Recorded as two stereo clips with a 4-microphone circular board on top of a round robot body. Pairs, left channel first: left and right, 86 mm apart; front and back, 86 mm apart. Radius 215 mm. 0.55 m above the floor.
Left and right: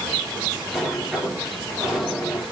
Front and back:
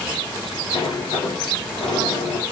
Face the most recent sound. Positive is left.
turn(degrees=0)